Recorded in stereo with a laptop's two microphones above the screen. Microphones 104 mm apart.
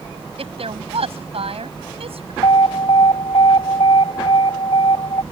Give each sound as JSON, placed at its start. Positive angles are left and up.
{"t": 0.4, "sound": "a woman speaking", "side_deg": -70}
{"t": 2.4, "sound": "an alarm", "side_deg": 70}